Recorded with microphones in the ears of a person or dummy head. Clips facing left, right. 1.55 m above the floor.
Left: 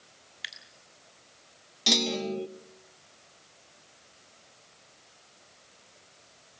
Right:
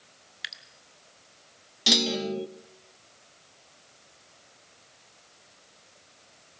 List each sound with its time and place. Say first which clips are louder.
0.4 s dripping: right 2 dB; centre (ahead or behind), 1.3 m
1.9 s a clunk: right 2 dB; 10° right (ahead or behind), 0.5 m